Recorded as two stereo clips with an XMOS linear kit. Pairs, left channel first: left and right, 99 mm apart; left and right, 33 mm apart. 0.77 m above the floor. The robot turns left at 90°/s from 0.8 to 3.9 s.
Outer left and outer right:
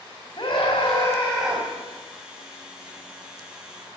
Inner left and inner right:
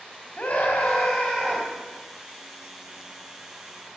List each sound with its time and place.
0.4 s a scream: 55° left, 4.5 m; by 1.7 s 25° right, 4.5 m